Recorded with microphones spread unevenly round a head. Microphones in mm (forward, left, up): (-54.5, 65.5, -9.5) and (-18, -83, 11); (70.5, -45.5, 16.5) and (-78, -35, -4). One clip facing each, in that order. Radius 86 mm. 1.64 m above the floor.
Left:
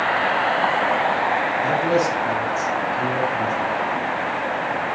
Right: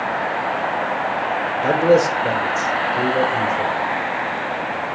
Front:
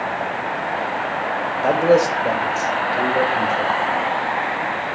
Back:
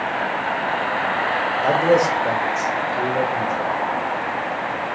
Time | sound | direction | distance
1.6 | a man speaking | 85° right | 1.0 m